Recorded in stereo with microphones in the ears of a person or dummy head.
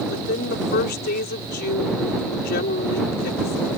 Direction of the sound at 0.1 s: 60° left (ahead or behind).